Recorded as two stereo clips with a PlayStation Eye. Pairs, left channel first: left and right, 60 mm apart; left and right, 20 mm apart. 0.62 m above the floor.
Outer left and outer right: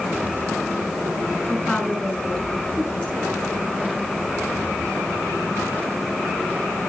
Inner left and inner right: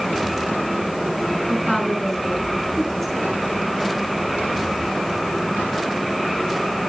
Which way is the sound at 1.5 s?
25° left (ahead or behind).